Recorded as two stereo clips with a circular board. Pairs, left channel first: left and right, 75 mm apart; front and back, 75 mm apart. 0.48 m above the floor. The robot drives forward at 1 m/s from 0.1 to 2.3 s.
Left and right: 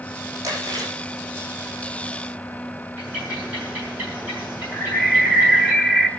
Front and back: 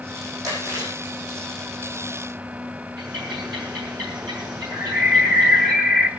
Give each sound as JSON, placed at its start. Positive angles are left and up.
{"t": 0.4, "sound": "chewing", "azimuth_deg": -135, "distance_m": 7.0}
{"t": 3.0, "sound": "a bird", "azimuth_deg": -160, "distance_m": 6.5}
{"t": 4.7, "sound": "a bird", "azimuth_deg": 165, "distance_m": 1.5}